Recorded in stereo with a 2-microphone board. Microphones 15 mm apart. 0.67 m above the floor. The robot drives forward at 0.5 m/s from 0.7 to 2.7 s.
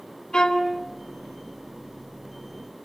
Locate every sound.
0.3 s a violin: 70° left (ahead or behind), 3.5 m